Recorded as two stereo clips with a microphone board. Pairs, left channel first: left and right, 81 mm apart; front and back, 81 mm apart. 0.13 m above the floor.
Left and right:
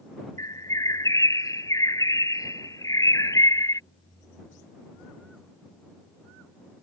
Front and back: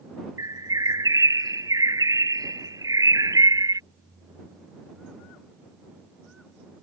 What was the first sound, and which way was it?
A bird, 135° left.